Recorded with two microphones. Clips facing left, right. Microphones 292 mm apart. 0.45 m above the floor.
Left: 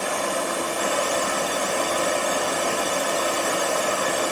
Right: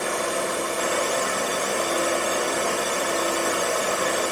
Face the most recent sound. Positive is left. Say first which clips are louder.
# even
turn(degrees=-25)  # may be behind; listen again after turning